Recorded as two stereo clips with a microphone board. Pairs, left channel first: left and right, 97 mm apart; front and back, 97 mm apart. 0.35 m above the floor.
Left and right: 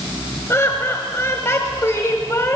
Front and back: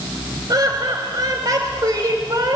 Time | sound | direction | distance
0.5 | laughter | 145° left | 1.4 m